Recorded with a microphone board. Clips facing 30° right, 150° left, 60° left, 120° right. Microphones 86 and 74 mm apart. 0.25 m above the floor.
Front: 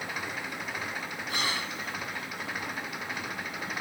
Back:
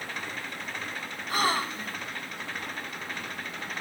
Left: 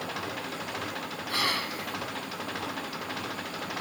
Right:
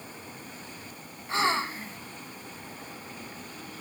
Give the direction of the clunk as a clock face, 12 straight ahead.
I don't hear a clunk.